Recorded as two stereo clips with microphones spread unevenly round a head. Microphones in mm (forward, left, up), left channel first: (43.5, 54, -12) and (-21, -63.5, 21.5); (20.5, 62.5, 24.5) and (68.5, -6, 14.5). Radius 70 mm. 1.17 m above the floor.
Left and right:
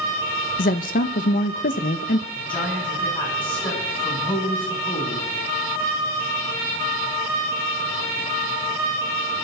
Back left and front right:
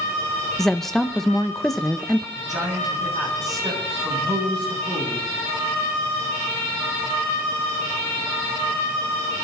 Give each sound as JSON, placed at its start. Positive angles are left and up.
{"t": 0.6, "sound": "a woman speaking", "azimuth_deg": 40, "distance_m": 0.9}
{"t": 2.4, "sound": "a man speaking", "azimuth_deg": -20, "distance_m": 9.5}